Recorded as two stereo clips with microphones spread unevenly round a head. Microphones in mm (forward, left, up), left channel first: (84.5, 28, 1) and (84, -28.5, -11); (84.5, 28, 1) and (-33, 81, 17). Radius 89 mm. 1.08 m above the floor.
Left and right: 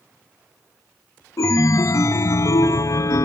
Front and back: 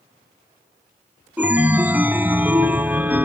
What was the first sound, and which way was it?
A chime, 80° left.